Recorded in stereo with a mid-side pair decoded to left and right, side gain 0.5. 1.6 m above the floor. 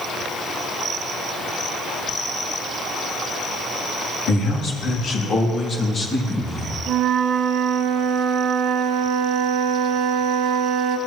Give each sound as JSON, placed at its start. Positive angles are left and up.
{"t": 4.3, "sound": "a man speaking", "azimuth_deg": 70, "distance_m": 3.5}
{"t": 6.9, "sound": "a flute", "azimuth_deg": -65, "distance_m": 0.8}